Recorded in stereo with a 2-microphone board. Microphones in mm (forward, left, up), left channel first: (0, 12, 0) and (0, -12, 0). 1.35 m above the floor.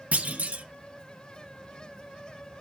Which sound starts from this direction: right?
A clunk, at 0.1 s.